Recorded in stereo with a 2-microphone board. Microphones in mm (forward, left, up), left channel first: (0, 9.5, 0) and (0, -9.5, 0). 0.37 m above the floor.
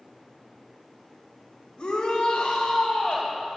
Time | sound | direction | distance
1.8 | a shout | 55° left (ahead or behind) | 1.3 m